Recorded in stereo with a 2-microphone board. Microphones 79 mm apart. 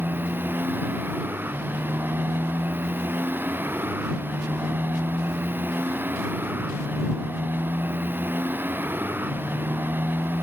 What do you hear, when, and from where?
0.0 s a motorcycle: 25° right (ahead or behind)